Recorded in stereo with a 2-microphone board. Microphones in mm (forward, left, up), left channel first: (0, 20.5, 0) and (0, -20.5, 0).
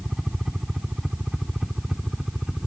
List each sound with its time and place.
0.0 s a helicopter: 10° right (ahead or behind); by 2.7 s 15° right (ahead or behind)